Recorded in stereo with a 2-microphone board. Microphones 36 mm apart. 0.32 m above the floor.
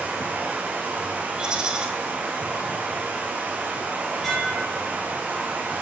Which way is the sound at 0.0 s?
60° right (ahead or behind).